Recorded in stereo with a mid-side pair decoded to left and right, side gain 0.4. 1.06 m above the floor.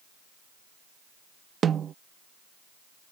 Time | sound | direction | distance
1.6 | a snare drum | 55° right | ?